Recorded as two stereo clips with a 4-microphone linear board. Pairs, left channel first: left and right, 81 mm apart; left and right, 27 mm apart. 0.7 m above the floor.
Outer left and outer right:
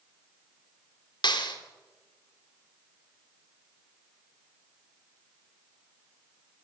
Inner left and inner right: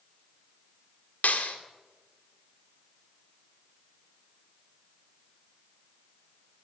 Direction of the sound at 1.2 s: 65° left (ahead or behind).